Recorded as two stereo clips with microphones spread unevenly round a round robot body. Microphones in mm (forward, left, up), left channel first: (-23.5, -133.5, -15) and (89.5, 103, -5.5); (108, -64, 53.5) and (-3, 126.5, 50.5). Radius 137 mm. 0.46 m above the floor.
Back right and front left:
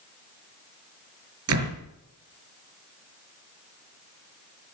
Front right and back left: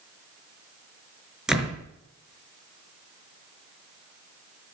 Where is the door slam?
30° left, 5.5 m.